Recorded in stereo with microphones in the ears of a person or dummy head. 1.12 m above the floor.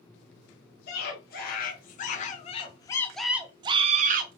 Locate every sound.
0.9 s a scream: 55° left (ahead or behind), 1.7 m; by 4.3 s 40° right (ahead or behind), 0.9 m